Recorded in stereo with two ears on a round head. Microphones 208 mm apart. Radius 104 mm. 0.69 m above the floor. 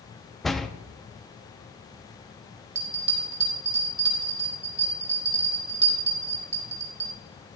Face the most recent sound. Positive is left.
turn(degrees=-50)  # may be behind; listen again after turning